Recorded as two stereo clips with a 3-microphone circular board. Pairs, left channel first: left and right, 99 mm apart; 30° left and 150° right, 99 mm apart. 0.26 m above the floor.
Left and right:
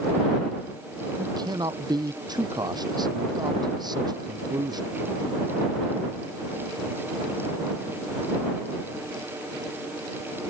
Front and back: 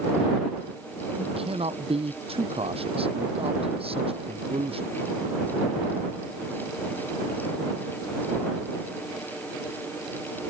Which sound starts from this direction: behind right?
A man speaking, at 1.2 s.